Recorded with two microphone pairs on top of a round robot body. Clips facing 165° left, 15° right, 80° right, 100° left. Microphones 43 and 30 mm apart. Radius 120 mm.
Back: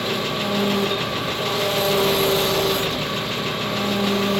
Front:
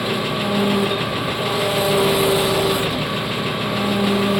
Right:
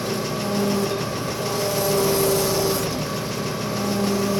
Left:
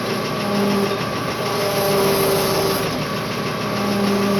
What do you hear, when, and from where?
0.0 s an engine running: 65° left, 0.8 m